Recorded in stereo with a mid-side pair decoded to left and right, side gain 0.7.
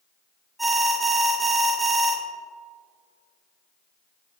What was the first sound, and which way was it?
An alarm, 5° right.